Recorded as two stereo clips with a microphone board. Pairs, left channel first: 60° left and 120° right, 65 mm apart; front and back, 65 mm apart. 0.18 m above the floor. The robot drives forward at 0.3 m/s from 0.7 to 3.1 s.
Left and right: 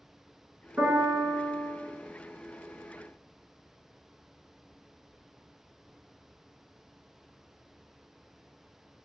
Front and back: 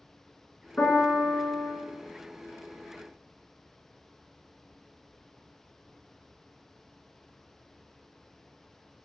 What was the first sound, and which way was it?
A piano, 70° right.